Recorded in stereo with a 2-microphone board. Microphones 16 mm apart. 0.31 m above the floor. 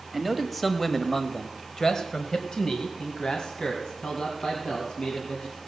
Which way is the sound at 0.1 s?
5° right (ahead or behind).